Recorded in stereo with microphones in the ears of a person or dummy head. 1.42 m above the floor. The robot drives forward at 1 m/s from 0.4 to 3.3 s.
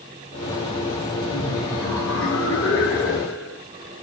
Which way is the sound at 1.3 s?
80° left.